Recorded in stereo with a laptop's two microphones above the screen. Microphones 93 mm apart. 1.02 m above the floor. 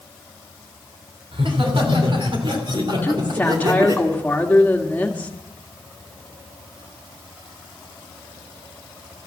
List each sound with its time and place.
1.3 s laughter: 70° right (ahead or behind), 3 m; by 4.0 s 40° right (ahead or behind), 2 m
3.0 s a woman speaking: 20° left (ahead or behind), 1.6 m